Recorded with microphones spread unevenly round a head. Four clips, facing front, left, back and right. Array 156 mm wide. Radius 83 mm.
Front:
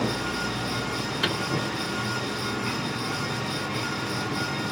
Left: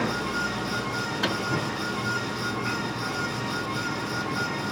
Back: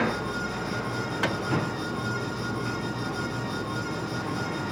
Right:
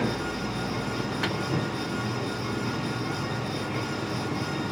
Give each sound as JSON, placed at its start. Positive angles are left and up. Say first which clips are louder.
{"t": 1.2, "sound": "a microwave", "louder": "left 4 dB, back 1 dB", "azimuth_deg": 150, "distance_m": 1.9}